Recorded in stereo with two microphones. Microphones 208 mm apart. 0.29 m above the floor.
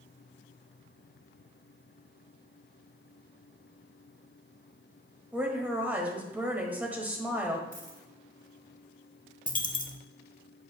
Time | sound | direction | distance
5.3 | a woman speaking | 10° right (ahead or behind) | 1.4 m
7.7 | a dropped coin | 50° right (ahead or behind) | 1.4 m
9.5 | a dropped coin | 40° left (ahead or behind) | 0.8 m